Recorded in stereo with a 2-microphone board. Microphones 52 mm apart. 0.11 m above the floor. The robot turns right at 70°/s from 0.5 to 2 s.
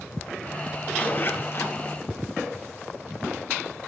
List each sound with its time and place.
0.9 s a zipper: 30° left, 2.0 m; by 1.8 s 85° left, 2.0 m